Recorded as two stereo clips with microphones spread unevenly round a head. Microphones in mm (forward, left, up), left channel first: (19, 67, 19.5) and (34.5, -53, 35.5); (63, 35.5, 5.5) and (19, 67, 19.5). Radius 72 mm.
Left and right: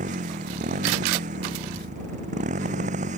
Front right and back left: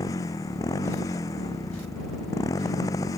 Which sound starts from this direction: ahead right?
A motorcycle, at 0.0 s.